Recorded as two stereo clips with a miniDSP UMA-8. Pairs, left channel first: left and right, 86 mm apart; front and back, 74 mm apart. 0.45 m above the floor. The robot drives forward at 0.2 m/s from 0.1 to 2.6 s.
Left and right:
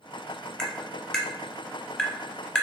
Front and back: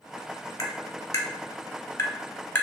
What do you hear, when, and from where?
0.6 s tapping: 10° left, 0.9 m; by 2.6 s 25° left, 0.7 m